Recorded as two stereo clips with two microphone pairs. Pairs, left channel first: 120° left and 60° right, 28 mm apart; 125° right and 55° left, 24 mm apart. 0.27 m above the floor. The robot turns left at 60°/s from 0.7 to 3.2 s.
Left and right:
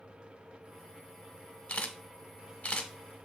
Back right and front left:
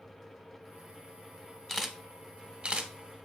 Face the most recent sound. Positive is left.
turn(degrees=60)